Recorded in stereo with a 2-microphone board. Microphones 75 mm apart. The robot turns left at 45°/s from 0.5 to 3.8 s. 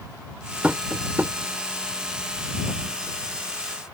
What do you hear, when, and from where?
0.6 s tapping: 20° right (ahead or behind); by 1.3 s 30° right (ahead or behind)